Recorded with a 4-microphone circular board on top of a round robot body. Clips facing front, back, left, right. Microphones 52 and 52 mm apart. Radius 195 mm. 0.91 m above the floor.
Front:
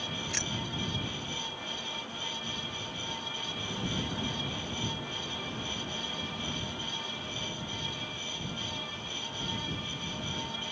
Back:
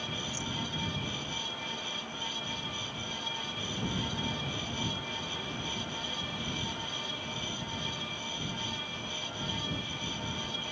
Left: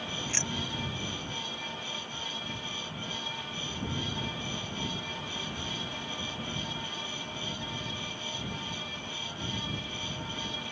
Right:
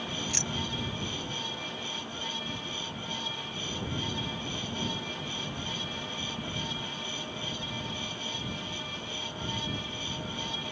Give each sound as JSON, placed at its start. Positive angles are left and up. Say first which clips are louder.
{"t": 0.3, "sound": "keys jangling", "louder": "front 1 dB, right 1 dB", "azimuth_deg": 25}